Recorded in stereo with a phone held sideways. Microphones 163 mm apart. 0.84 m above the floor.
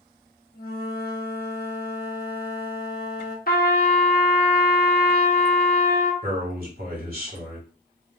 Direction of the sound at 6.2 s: 60° right (ahead or behind).